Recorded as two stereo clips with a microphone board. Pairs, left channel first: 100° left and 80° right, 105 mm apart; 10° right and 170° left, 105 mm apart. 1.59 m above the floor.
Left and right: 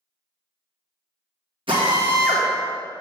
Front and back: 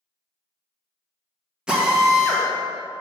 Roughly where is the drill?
Right.